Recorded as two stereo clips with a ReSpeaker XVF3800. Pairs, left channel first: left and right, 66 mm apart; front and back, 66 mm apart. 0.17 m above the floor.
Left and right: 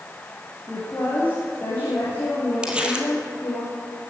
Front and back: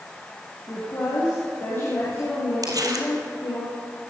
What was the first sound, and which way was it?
A woman speaking, 30° left.